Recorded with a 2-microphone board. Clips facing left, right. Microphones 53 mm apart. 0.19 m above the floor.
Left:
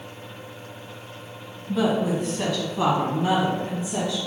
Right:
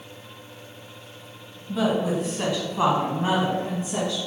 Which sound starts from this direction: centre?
A woman speaking, at 1.7 s.